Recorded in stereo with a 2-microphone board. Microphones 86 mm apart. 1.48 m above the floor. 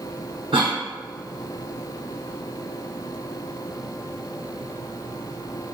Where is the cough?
70° right (ahead or behind), 1.0 m.